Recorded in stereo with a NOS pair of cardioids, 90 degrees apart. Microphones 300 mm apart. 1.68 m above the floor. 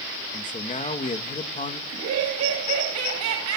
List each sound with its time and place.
0.3 s a man speaking: 25° left, 2.5 m
1.9 s laughter: 65° right, 4 m